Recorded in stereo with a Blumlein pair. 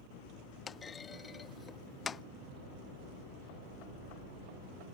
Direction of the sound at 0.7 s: 20° left.